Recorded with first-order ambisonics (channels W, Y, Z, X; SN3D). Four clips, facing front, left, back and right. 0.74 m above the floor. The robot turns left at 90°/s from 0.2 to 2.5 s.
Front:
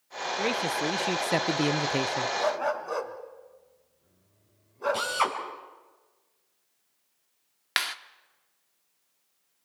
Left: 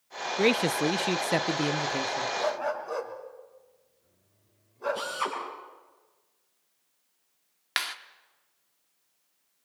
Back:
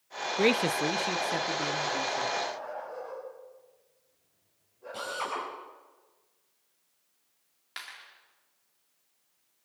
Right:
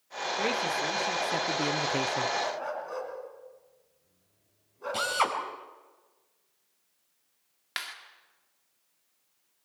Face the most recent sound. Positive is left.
turn(degrees=25)